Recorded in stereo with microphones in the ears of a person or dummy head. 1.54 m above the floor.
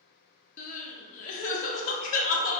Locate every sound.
0.6 s crying: 40° left (ahead or behind), 0.7 m